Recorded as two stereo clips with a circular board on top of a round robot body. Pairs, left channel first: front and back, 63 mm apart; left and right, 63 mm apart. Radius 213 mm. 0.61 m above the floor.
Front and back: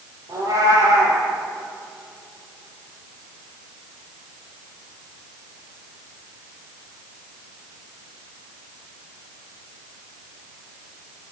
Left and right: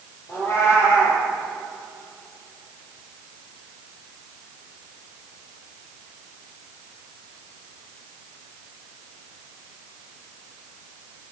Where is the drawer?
I don't hear a drawer.